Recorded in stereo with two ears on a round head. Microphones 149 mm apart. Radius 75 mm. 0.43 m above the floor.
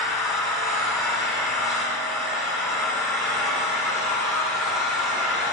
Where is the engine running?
Centre (ahead or behind), 3.5 m.